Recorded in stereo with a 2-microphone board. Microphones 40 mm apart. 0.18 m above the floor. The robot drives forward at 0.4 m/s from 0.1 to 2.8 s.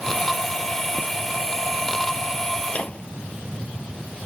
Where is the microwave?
30° left (ahead or behind).